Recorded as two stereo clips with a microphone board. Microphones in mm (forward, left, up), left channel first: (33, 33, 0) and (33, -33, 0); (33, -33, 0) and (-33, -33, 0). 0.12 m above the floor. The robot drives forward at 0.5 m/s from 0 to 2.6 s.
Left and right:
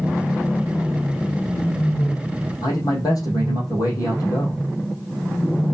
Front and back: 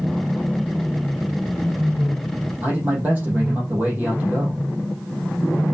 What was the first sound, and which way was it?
A man speaking, 115° left.